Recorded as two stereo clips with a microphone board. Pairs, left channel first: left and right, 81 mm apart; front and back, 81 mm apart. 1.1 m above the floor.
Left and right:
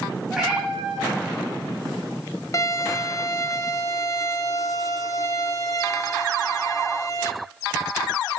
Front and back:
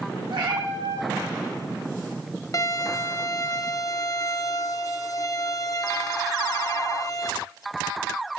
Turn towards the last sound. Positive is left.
turn(degrees=45)